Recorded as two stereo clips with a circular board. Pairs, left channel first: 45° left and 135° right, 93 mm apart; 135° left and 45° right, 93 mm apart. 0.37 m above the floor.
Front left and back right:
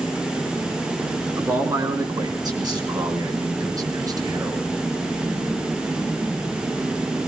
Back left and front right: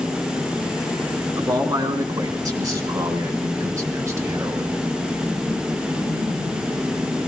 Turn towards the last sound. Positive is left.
turn(degrees=-100)